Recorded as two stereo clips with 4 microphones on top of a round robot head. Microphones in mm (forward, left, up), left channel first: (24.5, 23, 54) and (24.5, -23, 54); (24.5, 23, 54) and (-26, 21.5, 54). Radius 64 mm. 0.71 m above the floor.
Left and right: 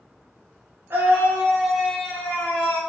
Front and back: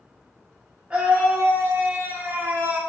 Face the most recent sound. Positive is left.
turn(degrees=125)